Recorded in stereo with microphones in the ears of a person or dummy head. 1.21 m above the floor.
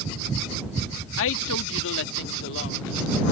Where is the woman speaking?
65° left (ahead or behind); by 3.3 s 55° left (ahead or behind).